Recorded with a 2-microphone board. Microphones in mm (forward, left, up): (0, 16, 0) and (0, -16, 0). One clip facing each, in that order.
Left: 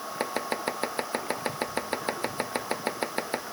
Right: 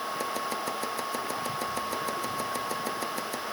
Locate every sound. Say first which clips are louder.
0.2 s chopping: left 6 dB; 40° left (ahead or behind)